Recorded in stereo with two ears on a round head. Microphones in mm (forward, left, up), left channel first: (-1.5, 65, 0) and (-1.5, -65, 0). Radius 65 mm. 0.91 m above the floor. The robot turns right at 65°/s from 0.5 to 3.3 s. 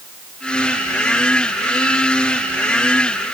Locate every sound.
Only background noise.